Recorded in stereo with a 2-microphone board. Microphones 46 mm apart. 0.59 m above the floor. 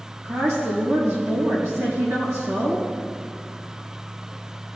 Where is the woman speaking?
75° right (ahead or behind), 4 m.